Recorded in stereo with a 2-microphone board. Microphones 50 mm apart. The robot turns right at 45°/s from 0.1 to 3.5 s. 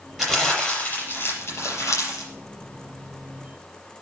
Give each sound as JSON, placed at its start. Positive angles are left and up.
{"t": 0.2, "sound": "crumpling", "azimuth_deg": -10, "distance_m": 5.0}